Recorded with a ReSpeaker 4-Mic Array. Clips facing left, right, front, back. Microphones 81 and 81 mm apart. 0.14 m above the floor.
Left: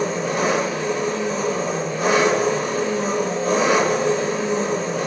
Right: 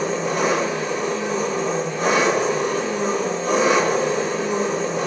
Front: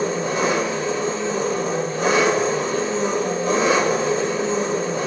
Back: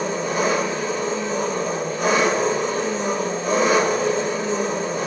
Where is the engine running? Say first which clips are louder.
Even, front 1 dB; 35° right, 1.6 m.